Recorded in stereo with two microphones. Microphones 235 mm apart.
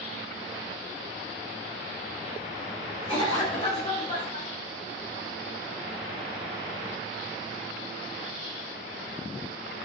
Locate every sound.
3.1 s a cough: 25° left (ahead or behind), 0.8 m